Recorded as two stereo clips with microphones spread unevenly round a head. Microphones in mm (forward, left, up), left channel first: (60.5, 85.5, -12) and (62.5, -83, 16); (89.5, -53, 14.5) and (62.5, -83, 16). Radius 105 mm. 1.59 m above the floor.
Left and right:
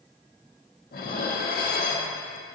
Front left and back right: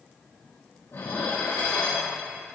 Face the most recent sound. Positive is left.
turn(degrees=70)